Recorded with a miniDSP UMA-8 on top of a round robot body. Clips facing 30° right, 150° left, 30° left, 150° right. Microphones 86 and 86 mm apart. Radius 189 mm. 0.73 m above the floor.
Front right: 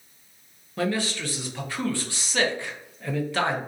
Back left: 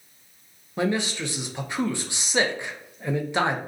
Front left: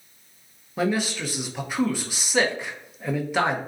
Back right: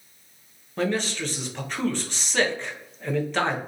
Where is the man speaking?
100° left, 0.8 m.